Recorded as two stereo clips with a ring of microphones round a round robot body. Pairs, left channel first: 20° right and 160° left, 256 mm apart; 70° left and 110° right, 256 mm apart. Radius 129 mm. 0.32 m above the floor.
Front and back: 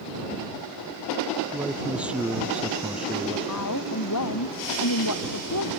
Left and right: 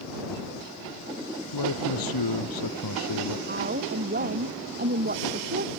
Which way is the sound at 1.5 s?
70° left.